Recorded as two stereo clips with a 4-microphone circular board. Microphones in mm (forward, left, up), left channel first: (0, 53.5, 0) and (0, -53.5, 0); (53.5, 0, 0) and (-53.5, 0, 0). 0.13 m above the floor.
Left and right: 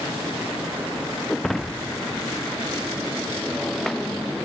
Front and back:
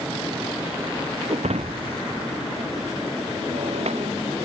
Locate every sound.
1.3 s breaking glass: straight behind